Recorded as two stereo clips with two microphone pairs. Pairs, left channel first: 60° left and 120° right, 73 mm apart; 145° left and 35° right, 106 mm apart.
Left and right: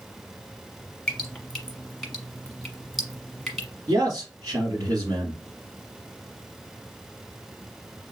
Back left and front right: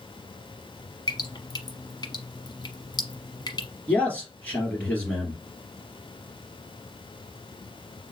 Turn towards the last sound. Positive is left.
turn(degrees=-140)